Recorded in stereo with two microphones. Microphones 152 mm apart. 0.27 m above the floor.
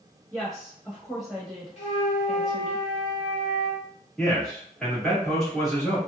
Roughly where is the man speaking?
Centre.